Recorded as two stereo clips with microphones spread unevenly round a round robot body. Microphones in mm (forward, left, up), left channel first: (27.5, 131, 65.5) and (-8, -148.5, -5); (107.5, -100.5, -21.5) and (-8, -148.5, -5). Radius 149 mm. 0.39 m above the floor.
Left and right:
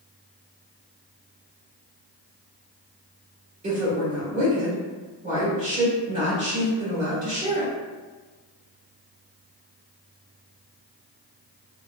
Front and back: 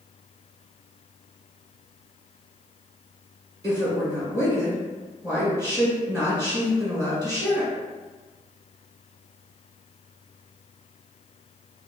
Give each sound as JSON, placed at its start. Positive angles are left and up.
{"t": 3.6, "sound": "a woman speaking", "azimuth_deg": -105, "distance_m": 1.6}